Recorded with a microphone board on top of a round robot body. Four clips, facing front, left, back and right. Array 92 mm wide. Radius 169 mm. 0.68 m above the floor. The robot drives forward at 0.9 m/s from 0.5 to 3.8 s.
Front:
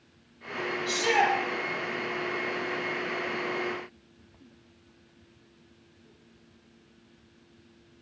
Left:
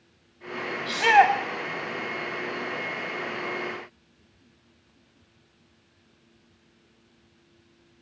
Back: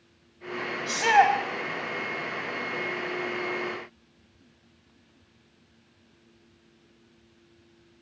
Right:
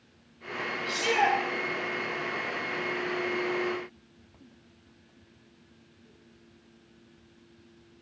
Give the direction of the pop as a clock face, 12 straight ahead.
I don't hear a pop.